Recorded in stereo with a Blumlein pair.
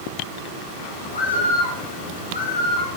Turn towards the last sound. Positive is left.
turn(degrees=65)